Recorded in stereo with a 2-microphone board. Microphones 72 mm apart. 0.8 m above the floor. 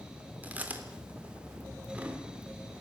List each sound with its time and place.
0.4 s chewing: 20° right (ahead or behind), 3 m